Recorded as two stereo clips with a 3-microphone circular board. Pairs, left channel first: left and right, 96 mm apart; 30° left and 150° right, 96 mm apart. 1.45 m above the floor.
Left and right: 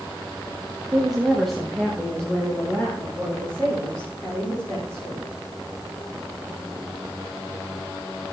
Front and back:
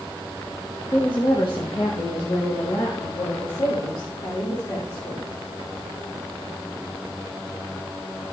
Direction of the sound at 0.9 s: 10° right.